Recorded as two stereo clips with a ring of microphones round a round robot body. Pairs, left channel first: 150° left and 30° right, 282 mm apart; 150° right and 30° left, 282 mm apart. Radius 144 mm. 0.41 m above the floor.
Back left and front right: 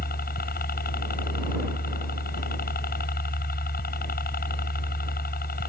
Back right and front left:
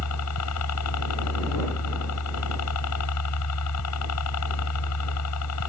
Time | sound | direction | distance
0.0 | a helicopter | 155° right | ?